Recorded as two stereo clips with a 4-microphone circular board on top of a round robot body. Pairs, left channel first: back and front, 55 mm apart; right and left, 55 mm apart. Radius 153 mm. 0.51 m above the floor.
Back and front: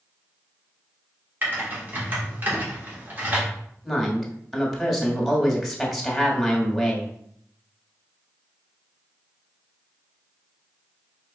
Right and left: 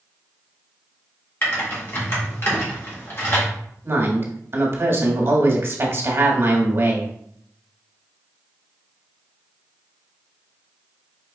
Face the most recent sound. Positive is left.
turn(degrees=90)